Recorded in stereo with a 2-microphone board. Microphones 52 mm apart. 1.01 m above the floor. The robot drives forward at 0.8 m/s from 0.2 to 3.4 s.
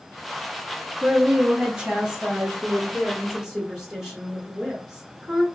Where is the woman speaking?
20° right (ahead or behind), 0.8 m; by 5.5 s 10° right (ahead or behind), 2.0 m.